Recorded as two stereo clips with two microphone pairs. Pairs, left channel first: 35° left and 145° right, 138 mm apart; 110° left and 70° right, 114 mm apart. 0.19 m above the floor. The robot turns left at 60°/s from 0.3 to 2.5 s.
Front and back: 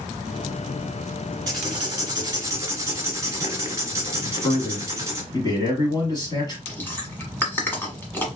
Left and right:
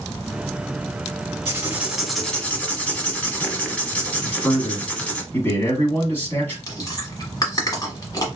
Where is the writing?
125° right, 1.0 m; by 5.2 s 175° left, 1.0 m.